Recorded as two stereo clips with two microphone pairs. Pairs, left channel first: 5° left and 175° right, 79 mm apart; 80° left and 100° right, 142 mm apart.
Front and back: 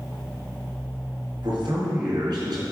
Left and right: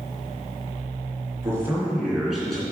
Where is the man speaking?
170° right, 3 m; by 2.6 s 165° left, 3 m.